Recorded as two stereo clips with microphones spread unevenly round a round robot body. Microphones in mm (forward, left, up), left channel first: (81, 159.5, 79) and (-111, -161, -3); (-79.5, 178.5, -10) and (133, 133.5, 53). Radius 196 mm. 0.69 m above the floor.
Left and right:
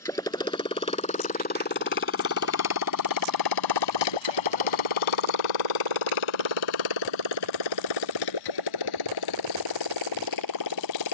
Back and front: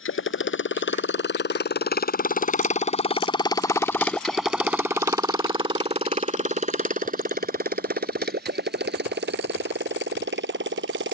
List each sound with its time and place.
0.0 s a motorcycle: 140° left; by 11.1 s 15° left